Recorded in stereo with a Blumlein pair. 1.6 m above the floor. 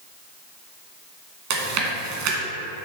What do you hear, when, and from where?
1.5 s chewing: 45° right, 1.6 m